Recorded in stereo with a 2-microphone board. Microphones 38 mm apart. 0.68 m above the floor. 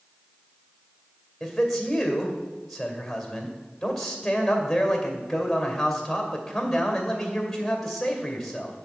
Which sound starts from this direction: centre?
A man speaking, at 1.4 s.